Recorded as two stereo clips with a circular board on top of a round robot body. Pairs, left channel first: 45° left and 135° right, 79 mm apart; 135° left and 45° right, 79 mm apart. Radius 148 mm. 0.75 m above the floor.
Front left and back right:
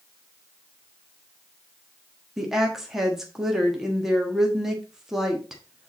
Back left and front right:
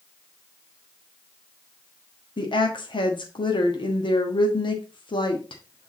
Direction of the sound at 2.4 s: 140° left.